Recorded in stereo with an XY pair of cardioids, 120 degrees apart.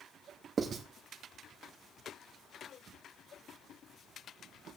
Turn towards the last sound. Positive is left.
turn(degrees=-40)